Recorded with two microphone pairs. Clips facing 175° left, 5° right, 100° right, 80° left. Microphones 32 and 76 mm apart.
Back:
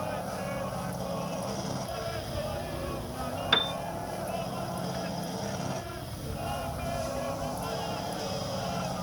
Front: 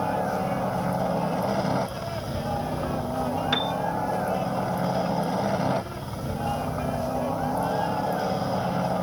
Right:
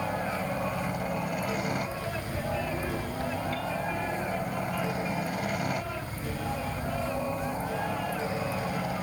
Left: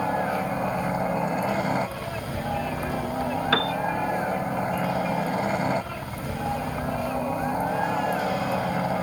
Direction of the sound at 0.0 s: 30° left.